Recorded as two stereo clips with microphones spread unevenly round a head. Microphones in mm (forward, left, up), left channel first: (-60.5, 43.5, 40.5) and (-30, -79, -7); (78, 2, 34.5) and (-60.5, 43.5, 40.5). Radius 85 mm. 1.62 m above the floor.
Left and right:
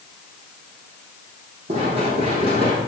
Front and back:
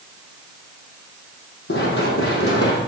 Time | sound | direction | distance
1.7 | running footsteps | 15° right | 3.5 m